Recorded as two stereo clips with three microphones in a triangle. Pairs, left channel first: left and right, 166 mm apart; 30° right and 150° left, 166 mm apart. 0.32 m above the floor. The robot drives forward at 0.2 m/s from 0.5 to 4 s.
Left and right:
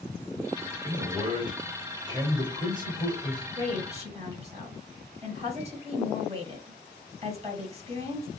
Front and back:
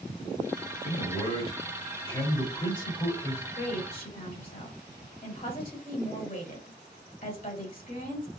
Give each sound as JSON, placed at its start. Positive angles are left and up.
{"t": 0.8, "sound": "a man speaking", "azimuth_deg": -40, "distance_m": 1.9}
{"t": 3.5, "sound": "a woman speaking", "azimuth_deg": -45, "distance_m": 1.7}